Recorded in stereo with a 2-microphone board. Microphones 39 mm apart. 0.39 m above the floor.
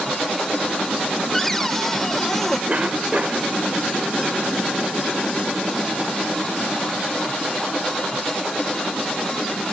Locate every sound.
1.3 s a cupboard door: 10° left (ahead or behind)
2.7 s a cough: 35° right (ahead or behind)